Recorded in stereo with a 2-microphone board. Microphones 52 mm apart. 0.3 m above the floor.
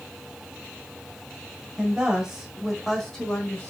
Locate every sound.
1.8 s a woman speaking: 20° right (ahead or behind), 1.4 m; by 3.7 s 25° left (ahead or behind), 1.4 m